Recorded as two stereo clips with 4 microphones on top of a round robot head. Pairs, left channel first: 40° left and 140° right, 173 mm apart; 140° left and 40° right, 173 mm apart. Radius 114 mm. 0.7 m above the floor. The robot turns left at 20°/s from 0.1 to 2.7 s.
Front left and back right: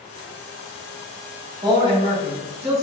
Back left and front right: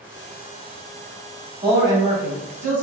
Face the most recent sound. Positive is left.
turn(degrees=-110)